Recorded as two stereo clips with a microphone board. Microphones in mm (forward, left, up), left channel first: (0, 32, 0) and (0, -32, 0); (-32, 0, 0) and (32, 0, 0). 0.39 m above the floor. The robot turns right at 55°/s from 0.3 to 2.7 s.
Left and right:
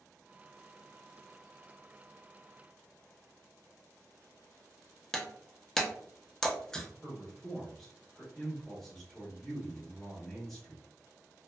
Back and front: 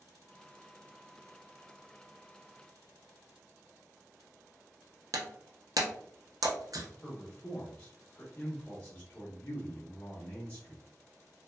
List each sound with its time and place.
5.1 s breaking glass: 10° left, 0.6 m
7.0 s a man speaking: 165° left, 0.8 m